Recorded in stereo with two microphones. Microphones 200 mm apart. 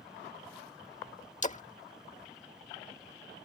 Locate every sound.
1.4 s a splash: 35° left (ahead or behind)